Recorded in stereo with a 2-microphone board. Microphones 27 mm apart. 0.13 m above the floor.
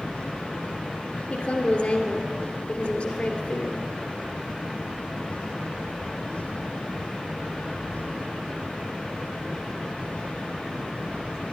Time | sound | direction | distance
1.3 | a woman speaking | 50° left (ahead or behind) | 2 m